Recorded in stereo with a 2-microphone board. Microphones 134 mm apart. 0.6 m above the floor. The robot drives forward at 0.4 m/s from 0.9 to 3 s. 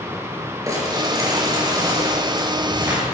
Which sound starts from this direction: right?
Crumpling, at 0.7 s.